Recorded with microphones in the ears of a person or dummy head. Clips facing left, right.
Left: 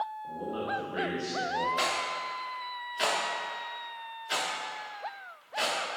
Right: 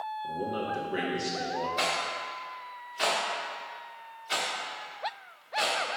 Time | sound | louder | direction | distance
0.2 | a man speaking | right 4 dB | 30° right (ahead or behind) | 1.7 m
1.8 | a rattle | right 1 dB | 10° left (ahead or behind) | 1.4 m